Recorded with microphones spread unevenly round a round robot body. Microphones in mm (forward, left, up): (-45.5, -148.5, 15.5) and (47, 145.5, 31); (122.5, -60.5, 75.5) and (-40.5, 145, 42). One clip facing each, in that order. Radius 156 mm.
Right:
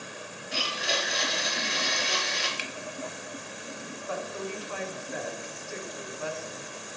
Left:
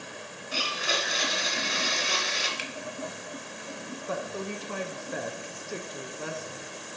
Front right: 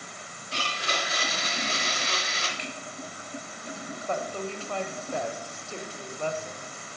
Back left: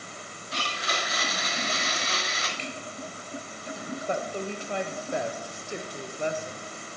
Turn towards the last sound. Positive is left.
turn(degrees=75)